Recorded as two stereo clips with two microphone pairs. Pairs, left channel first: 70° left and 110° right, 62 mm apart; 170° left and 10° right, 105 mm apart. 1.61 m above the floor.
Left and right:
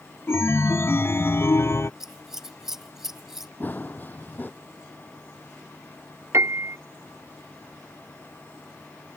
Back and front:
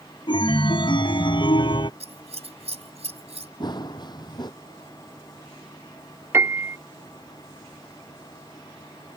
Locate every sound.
0.3 s a chime: 125° left
2.0 s scissors: 25° right
3.6 s running footsteps: 130° left
6.3 s a piano: 75° right